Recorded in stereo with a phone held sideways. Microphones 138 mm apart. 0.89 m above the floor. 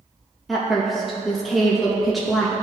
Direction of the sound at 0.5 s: Centre (ahead or behind).